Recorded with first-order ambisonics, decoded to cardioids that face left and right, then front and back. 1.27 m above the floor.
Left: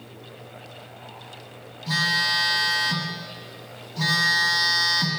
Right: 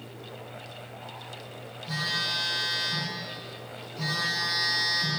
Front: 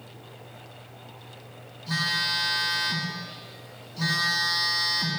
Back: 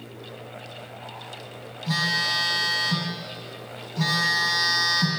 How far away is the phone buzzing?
About 1.9 m.